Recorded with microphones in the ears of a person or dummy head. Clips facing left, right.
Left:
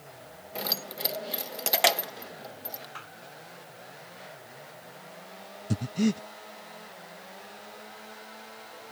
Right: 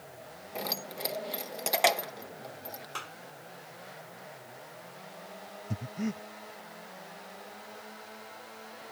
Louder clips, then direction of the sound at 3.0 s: Right 3 dB; 45° right (ahead or behind).